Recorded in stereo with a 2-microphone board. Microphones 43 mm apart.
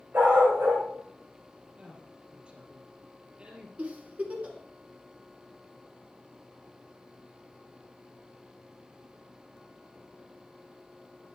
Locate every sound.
0.1 s a dog barking: 55° right (ahead or behind), 4.5 m
1.8 s a woman speaking: 30° right (ahead or behind), 3.5 m
3.8 s a giggle: 35° right (ahead or behind), 1.9 m